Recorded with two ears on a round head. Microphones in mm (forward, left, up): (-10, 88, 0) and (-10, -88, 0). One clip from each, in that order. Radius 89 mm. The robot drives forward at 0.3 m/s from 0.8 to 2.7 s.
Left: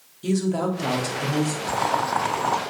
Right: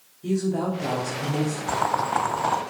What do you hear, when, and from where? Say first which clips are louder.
0.2 s a woman speaking: left 2 dB; 80° left, 3.5 m
1.7 s boiling: even; centre (ahead or behind), 1.0 m